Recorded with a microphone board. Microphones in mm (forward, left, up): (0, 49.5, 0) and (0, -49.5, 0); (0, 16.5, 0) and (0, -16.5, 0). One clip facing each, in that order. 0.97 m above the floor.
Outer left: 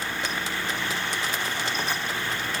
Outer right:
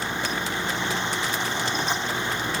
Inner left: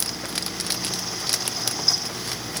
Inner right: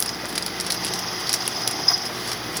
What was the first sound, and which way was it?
Only background noise.